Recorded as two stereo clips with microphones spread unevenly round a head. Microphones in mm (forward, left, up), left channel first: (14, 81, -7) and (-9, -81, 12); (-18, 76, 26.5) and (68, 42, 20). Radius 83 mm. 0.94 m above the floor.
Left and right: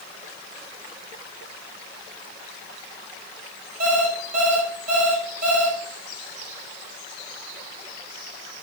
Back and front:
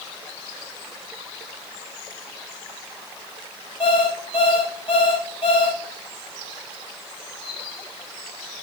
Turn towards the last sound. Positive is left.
turn(degrees=-140)